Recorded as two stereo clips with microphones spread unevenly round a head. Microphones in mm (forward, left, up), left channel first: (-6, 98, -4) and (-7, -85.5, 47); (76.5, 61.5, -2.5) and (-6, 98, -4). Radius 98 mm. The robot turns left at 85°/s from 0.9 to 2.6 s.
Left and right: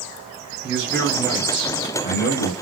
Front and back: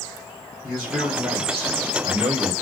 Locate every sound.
0.6 s a man speaking: 125° right, 0.8 m; by 2.5 s 95° left, 0.8 m